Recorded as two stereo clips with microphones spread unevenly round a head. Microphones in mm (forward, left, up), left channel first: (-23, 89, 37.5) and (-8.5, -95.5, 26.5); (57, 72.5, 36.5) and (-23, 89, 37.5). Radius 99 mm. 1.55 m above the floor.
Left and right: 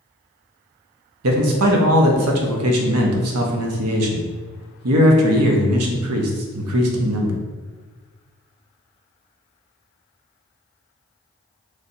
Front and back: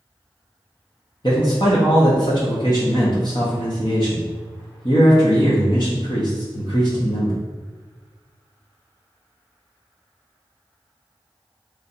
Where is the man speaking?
80° right, 0.7 m.